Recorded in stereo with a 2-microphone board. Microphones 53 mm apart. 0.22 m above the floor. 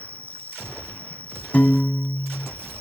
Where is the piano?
25° left (ahead or behind).